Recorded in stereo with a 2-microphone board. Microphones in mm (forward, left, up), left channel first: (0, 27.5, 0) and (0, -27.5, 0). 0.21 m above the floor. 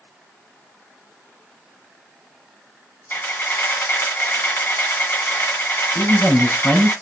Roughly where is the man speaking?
Left.